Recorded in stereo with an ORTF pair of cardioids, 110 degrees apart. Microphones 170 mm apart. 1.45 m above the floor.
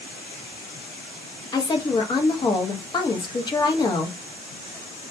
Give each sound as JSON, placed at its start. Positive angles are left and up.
{"t": 1.5, "sound": "a woman speaking", "azimuth_deg": 25, "distance_m": 0.8}